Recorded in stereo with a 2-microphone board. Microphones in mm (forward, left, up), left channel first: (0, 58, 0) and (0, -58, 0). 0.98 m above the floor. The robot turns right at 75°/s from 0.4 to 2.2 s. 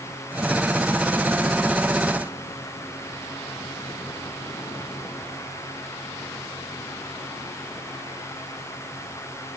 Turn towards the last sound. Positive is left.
No sound to turn to.